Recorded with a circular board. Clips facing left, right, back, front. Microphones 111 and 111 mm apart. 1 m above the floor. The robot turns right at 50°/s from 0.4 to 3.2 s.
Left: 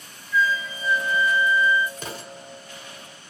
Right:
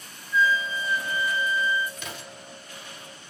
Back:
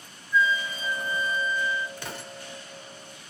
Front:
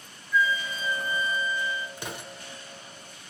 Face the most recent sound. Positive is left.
turn(degrees=120)